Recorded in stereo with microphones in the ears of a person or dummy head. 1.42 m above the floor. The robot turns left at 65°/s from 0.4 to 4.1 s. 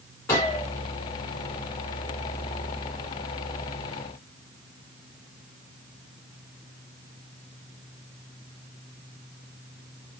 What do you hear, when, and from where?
0.3 s a gunshot: 20° left (ahead or behind), 1.6 m; by 0.7 s centre (ahead or behind), 1.6 m